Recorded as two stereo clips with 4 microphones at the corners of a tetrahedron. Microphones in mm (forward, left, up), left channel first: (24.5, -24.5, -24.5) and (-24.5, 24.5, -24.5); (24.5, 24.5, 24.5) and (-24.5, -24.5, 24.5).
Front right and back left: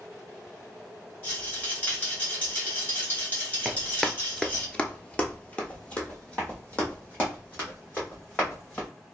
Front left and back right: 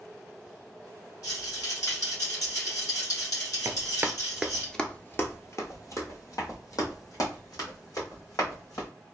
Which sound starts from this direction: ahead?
A rattle, at 1.2 s.